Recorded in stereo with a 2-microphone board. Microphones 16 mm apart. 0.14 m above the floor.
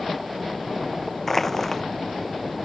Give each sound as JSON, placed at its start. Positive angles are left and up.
{"t": 1.3, "sound": "crushing", "side_deg": 15}